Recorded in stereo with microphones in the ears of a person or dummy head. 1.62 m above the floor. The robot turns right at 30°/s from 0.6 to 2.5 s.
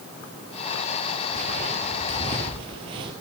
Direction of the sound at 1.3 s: 25° right (ahead or behind).